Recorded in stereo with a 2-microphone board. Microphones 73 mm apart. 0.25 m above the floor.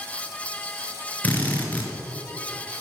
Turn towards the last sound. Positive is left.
turn(degrees=20)  # may be behind; listen again after turning